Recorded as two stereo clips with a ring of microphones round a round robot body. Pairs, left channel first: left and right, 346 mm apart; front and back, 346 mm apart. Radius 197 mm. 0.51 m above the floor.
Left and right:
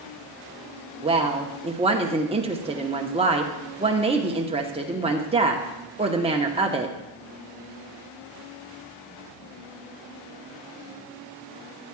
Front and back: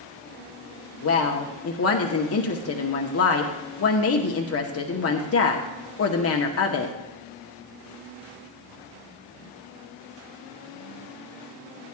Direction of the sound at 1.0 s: 25° right.